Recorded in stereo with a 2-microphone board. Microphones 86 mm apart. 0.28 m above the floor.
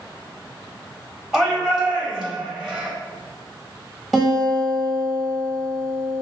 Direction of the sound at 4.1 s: Centre (ahead or behind).